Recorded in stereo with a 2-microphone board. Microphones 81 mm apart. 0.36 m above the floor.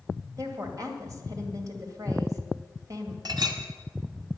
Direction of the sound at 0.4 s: 45° right (ahead or behind).